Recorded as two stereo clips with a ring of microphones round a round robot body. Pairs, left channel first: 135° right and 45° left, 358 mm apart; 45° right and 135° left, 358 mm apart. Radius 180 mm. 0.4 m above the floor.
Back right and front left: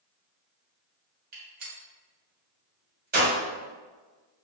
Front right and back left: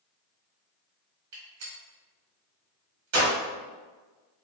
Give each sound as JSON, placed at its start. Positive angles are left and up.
{"t": 1.3, "sound": "a gunshot", "azimuth_deg": 105, "distance_m": 1.5}